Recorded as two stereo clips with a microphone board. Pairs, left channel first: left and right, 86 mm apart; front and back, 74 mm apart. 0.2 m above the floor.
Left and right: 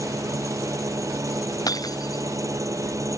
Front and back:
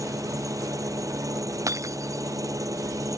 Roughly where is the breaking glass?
Behind left.